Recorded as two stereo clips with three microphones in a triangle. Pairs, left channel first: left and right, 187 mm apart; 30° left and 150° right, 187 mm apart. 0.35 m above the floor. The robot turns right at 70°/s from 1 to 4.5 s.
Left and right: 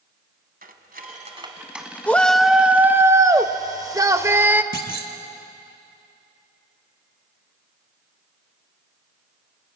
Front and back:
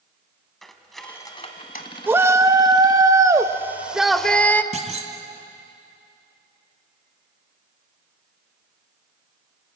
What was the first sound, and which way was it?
Cutlery clinking, 60° right.